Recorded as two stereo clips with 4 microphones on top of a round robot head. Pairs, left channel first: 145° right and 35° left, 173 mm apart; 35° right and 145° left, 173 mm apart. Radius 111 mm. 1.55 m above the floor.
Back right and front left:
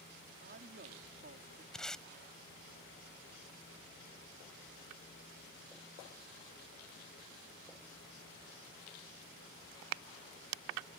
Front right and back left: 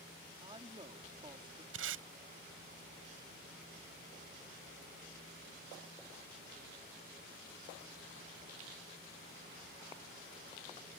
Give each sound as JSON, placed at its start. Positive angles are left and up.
{"t": 0.4, "sound": "a man speaking", "azimuth_deg": 80}
{"t": 1.7, "sound": "tape being pulled", "azimuth_deg": 130}